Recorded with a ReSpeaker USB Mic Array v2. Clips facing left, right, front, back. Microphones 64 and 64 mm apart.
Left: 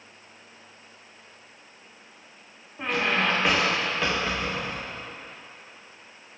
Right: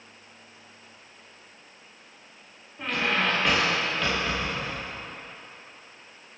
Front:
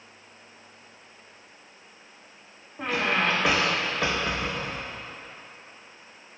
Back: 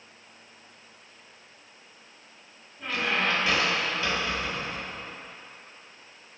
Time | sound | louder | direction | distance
2.8 | a squeak | left 1 dB, front 3 dB | 20° left | 2.5 m